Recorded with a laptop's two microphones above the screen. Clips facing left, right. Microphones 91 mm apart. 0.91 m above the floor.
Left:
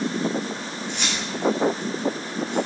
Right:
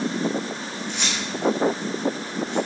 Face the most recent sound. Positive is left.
turn(degrees=55)  # may be behind; listen again after turning